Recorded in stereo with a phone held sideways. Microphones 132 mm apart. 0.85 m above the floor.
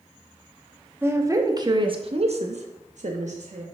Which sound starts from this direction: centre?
A woman speaking, at 1.0 s.